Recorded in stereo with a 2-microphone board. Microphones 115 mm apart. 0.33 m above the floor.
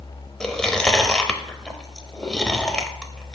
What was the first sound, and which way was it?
Chewing, 5° left (ahead or behind).